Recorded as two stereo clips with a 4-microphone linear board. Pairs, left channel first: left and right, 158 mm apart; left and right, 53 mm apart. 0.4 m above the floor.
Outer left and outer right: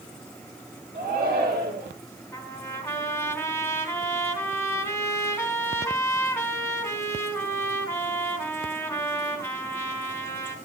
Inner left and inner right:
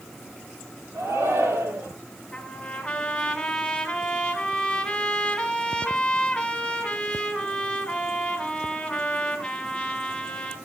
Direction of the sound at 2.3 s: 15° left (ahead or behind).